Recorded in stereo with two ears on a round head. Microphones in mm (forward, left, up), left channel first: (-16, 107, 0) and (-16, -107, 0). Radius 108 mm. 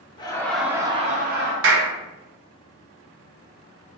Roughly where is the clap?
Right.